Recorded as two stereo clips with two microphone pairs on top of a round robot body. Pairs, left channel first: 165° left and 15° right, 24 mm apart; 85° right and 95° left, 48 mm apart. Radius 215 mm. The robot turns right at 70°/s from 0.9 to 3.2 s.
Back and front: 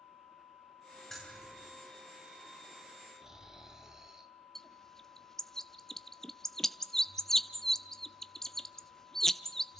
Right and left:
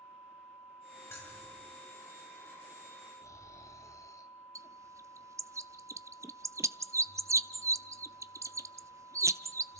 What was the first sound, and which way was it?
Keys jangling, 120° right.